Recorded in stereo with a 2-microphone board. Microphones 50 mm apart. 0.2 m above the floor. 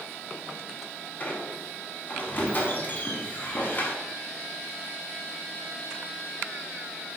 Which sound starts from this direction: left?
A squeak, at 1.2 s.